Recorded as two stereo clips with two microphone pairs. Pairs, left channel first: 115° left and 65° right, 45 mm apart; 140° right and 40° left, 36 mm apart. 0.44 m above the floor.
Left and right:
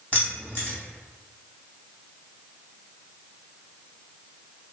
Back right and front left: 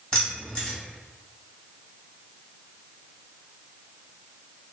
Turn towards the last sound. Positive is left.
turn(degrees=165)